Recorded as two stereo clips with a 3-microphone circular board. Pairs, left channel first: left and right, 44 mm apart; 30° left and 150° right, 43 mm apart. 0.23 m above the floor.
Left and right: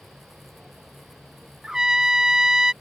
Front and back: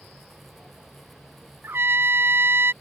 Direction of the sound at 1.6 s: 165° right.